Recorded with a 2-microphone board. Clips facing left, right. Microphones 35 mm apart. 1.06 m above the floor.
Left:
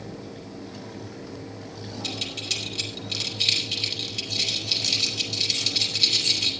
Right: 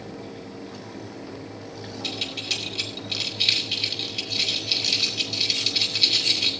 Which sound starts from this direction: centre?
Keys jangling, at 2.0 s.